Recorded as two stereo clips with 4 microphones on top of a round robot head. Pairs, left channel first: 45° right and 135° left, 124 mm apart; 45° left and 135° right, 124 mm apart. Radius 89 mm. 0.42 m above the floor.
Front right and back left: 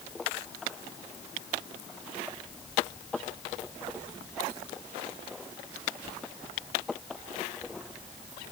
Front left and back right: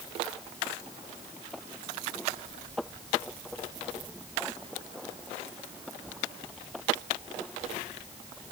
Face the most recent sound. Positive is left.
No sound to turn to.